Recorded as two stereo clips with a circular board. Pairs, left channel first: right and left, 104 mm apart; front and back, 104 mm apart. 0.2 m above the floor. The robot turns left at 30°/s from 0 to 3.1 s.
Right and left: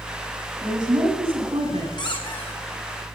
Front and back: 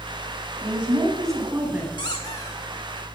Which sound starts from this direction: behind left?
A woman speaking, at 0.6 s.